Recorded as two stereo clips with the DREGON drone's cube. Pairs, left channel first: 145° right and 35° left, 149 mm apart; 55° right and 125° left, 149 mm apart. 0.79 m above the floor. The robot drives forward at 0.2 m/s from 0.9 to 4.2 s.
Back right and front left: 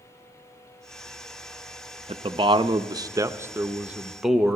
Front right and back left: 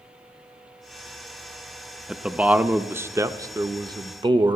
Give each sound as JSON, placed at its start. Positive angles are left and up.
{"t": 2.1, "sound": "a man speaking", "azimuth_deg": 40, "distance_m": 0.6}